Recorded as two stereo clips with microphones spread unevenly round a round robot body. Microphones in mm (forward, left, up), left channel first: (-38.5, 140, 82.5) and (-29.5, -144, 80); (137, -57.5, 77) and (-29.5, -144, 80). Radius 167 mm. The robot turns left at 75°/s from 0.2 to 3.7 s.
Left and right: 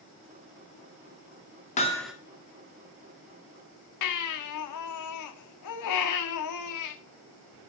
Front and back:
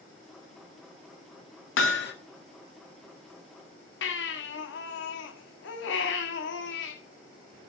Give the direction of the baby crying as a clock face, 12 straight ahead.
10 o'clock.